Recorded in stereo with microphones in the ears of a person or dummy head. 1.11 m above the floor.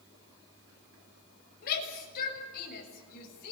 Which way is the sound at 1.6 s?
55° left (ahead or behind).